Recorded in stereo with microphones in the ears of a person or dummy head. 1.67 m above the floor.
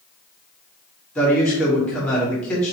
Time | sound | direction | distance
1.1 | a man speaking | 10° left (ahead or behind) | 1.7 m